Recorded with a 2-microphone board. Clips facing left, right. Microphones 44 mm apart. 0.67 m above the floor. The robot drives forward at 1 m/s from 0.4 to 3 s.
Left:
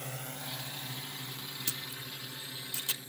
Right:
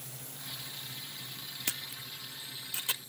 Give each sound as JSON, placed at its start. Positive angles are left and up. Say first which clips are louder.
{"t": 0.0, "sound": "a drone", "louder": "left 6 dB", "side_deg": 65}
{"t": 1.7, "sound": "a camera shutter", "louder": "even", "side_deg": -65}